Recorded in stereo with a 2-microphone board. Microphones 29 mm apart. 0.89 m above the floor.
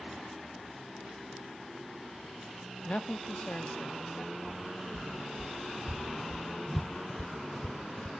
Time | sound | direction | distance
2.9 | a man speaking | 35° left (ahead or behind) | 0.8 m
4.5 | footsteps | 60° right (ahead or behind) | 2 m